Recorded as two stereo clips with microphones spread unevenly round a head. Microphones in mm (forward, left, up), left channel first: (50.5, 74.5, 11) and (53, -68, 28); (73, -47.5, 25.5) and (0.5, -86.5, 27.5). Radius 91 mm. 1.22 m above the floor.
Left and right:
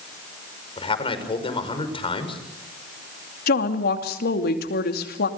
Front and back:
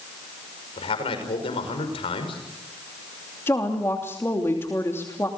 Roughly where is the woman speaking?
Left.